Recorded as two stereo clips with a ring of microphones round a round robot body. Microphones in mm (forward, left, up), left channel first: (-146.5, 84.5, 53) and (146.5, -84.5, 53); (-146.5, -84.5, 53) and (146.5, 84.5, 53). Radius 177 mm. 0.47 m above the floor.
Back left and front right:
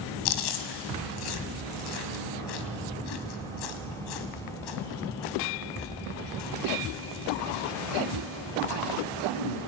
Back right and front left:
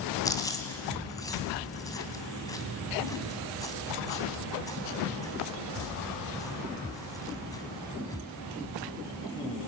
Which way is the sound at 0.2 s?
130° left.